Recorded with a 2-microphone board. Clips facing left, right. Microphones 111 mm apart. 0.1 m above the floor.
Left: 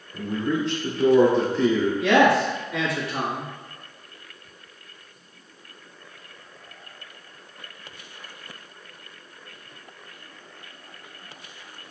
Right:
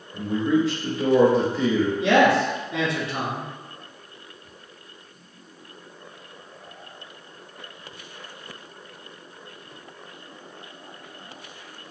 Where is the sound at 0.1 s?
5° right (ahead or behind), 1.1 m.